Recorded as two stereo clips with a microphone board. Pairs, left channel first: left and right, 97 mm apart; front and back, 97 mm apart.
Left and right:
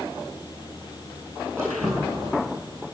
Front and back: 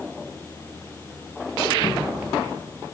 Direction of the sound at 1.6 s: 30° right.